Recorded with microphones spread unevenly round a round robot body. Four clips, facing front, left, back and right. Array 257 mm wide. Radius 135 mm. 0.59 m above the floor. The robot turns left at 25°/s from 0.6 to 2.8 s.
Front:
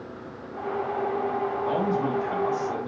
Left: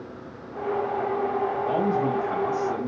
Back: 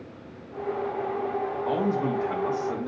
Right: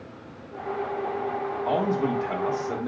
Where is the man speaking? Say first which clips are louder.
Right 2 dB, back 1 dB; 100° right, 2 m; by 2.9 s 130° right, 2 m.